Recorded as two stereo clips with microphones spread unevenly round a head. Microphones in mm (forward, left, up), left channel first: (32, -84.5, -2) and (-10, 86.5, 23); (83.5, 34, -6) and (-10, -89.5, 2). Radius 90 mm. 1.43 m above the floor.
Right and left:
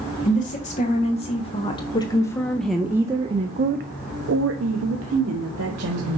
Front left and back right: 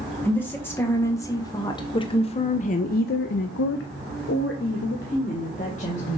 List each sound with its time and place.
0.2 s a woman speaking: 25° right, 1.7 m; by 6.2 s 110° left, 1.5 m